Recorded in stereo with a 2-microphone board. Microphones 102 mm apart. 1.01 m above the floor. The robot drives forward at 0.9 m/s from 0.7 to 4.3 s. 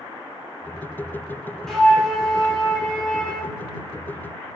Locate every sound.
1.7 s a flute: 5° left (ahead or behind), 3 m